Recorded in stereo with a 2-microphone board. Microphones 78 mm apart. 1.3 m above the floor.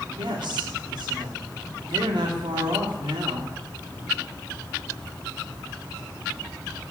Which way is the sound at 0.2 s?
75° right (ahead or behind).